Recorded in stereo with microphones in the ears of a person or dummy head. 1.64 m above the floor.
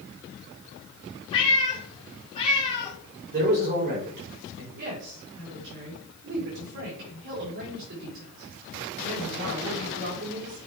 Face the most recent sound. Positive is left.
turn(degrees=-60)  # may be behind; listen again after turning